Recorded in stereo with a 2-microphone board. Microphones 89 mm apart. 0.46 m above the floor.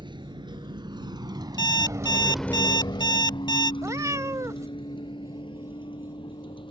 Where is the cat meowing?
40° right (ahead or behind).